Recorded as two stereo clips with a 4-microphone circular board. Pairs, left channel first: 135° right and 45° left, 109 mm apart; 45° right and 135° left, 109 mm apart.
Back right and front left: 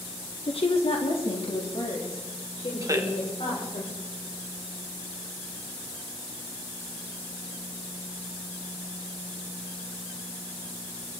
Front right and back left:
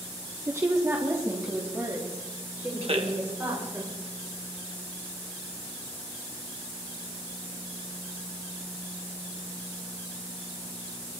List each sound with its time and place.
0.5 s a woman speaking: 160° right, 1.2 m
2.8 s a man speaking: 105° left, 2 m